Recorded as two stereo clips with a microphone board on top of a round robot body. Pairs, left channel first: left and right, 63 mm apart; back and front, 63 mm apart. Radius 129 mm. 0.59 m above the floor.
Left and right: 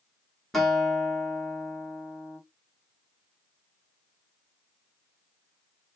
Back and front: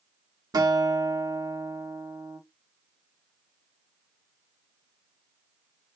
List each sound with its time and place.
0.5 s a guitar: 5° left, 1.7 m